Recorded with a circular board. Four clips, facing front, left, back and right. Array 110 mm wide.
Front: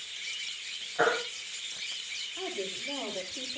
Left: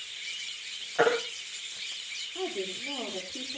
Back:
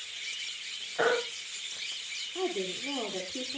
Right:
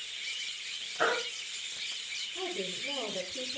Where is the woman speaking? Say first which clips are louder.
Left 3 dB, back 5 dB; 155° left, 8 m.